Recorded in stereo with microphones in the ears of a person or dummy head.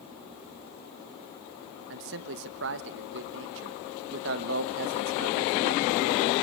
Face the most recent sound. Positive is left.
turn(degrees=-70)  # may be behind; listen again after turning